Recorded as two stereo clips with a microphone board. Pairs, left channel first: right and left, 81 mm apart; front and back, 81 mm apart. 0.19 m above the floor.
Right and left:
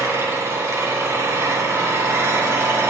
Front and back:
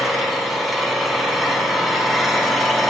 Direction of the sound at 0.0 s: 90° left.